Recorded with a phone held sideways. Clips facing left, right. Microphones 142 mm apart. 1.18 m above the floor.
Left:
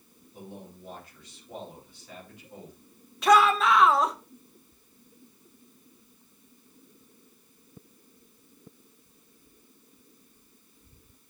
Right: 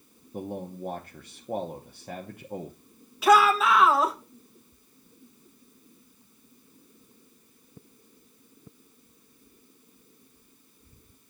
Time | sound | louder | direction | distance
0.3 | a man speaking | right 10 dB | 50° right (ahead or behind) | 0.7 m
3.2 | a shout | right 1 dB | 5° right (ahead or behind) | 1.2 m